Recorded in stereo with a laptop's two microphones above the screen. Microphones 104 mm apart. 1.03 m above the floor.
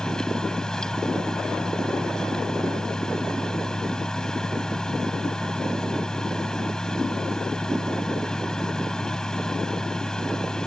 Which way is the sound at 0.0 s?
5° left (ahead or behind).